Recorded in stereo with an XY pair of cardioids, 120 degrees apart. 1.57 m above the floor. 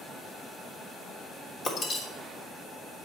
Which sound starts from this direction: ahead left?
Breaking glass, at 1.6 s.